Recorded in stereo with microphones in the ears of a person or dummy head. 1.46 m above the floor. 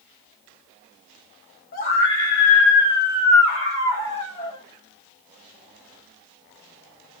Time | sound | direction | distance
1.7 | a scream | 45° left (ahead or behind) | 3.5 m